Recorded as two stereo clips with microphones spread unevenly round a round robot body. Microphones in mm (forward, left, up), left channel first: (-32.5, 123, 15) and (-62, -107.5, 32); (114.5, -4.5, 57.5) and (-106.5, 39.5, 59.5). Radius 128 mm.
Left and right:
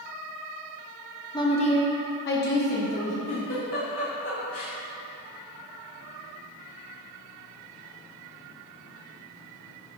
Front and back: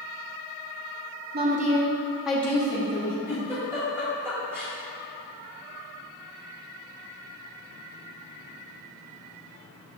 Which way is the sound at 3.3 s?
90° left.